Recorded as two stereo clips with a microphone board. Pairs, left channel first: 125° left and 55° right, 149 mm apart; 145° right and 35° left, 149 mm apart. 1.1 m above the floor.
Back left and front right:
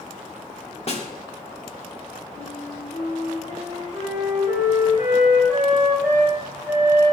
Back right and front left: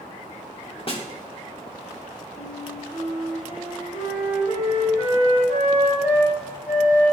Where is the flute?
120° right, 6.5 m.